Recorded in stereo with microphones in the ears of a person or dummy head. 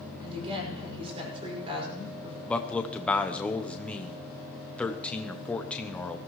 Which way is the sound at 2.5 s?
5° left (ahead or behind).